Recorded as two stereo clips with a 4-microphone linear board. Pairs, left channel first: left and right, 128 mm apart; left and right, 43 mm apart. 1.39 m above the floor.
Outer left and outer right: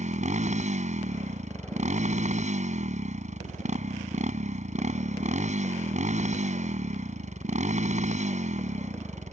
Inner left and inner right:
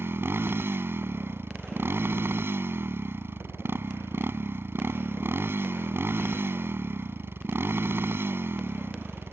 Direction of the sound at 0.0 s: 70° right (ahead or behind).